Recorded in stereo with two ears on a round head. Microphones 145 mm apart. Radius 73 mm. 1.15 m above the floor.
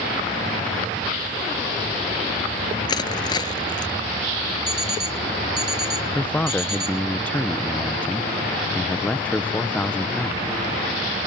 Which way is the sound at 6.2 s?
10° left (ahead or behind).